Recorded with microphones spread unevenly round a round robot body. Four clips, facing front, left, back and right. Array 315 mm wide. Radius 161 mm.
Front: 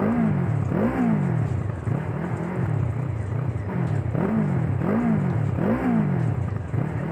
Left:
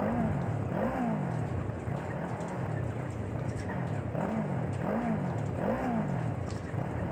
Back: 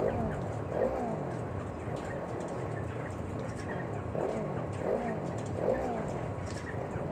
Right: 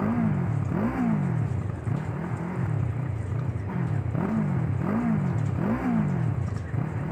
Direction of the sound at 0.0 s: 35° right.